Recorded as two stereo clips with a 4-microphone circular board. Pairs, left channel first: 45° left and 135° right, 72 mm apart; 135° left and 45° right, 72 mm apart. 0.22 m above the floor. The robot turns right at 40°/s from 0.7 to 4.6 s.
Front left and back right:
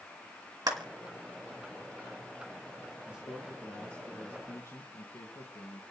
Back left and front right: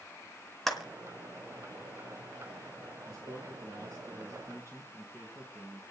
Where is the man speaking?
65° right, 3.5 m; by 5.8 s straight ahead, 3.5 m.